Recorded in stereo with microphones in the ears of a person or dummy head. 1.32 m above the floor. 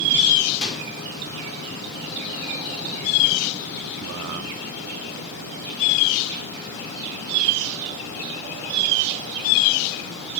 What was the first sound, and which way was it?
A microwave, 10° left (ahead or behind).